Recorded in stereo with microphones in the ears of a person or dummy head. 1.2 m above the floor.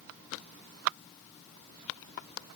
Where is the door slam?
No door slam in this recording.